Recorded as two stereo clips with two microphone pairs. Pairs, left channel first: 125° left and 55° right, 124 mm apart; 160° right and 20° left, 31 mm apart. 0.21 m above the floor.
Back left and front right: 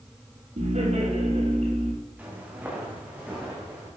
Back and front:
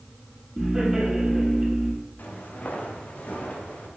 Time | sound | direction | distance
0.6 | laughter | 55° right | 6 m
2.2 | footsteps | 135° right | 3.5 m